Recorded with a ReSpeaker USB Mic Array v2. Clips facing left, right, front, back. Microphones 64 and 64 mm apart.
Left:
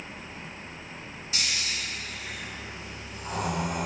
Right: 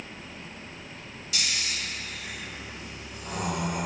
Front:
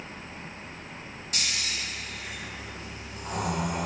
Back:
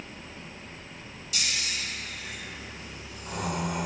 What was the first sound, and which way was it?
Snoring, 35° left.